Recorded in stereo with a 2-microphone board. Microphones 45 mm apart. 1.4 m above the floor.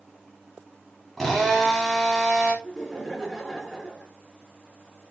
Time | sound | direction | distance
1.2 | a drill | 5° right (ahead or behind) | 3.5 m
2.6 | laughter | 5° right (ahead or behind) | 4.5 m